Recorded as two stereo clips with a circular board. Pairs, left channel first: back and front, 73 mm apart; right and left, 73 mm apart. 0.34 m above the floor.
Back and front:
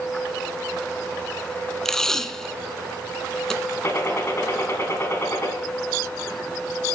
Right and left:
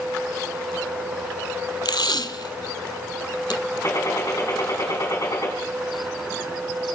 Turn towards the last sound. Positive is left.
turn(degrees=-130)